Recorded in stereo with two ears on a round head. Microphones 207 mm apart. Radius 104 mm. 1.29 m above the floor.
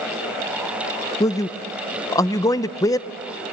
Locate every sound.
1.2 s a man speaking: 15° left (ahead or behind), 0.5 m